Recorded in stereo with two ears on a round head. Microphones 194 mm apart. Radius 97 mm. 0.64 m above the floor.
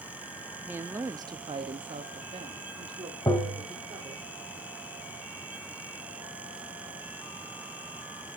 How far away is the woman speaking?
About 0.7 m.